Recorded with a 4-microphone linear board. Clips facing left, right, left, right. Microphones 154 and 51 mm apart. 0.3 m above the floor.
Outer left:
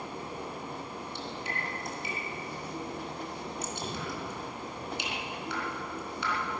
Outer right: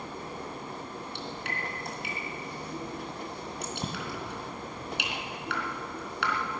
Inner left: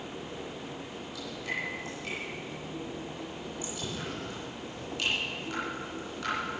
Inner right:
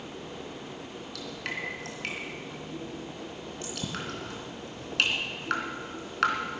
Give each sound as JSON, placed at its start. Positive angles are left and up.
{"t": 1.1, "sound": "dripping", "side_deg": -70, "distance_m": 3.5}